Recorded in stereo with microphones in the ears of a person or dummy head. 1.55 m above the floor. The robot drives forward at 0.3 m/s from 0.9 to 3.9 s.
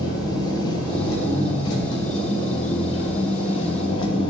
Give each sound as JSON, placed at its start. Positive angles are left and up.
{"t": 0.0, "sound": "an engine running", "side_deg": 25, "distance_m": 3.0}